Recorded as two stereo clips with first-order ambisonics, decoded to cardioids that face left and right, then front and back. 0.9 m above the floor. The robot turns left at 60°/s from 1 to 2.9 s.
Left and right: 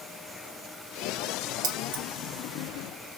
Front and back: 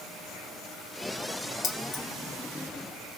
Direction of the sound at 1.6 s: 60° right.